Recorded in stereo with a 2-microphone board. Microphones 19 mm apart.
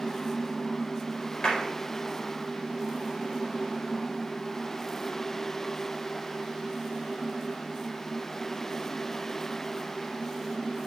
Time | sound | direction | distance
1.4 | a clap | 40° left (ahead or behind) | 4.5 m